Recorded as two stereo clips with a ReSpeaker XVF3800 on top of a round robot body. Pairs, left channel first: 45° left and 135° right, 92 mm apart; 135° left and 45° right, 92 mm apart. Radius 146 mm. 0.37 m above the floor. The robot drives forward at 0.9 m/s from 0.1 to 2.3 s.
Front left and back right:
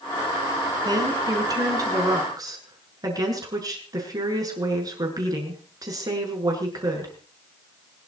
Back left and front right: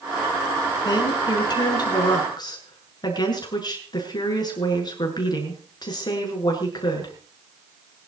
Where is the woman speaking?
175° left, 6 m.